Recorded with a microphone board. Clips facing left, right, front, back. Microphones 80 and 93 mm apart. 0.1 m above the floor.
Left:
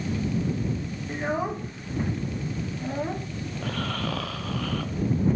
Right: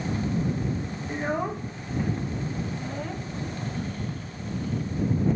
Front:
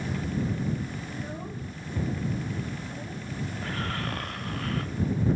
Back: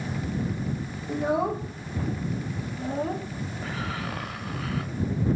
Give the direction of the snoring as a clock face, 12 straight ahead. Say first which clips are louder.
Left 2 dB, back 1 dB; 9 o'clock.